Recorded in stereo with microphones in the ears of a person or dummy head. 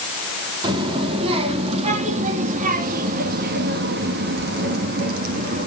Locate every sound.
0.6 s a child speaking: 30° right (ahead or behind), 3 m; by 5.7 s 50° right (ahead or behind), 2 m